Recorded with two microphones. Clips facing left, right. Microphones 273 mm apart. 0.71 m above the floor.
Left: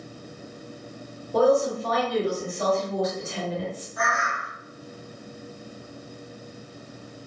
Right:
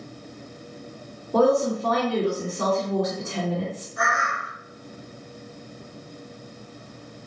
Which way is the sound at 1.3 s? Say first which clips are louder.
Right 1 dB; 60° right (ahead or behind).